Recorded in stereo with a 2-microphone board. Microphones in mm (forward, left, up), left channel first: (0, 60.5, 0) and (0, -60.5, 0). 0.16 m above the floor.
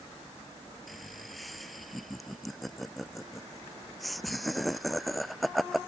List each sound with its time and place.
0.9 s laughter: centre (ahead or behind)